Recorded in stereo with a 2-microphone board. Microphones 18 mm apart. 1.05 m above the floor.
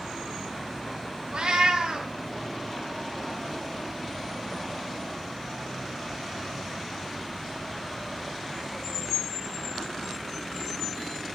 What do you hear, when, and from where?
1.3 s a cat meowing: 55° right (ahead or behind), 1.3 m